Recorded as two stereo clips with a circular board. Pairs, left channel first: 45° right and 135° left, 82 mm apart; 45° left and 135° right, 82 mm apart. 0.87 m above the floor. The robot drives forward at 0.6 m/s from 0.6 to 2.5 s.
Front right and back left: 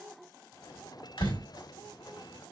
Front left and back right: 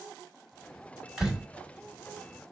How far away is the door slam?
About 3 m.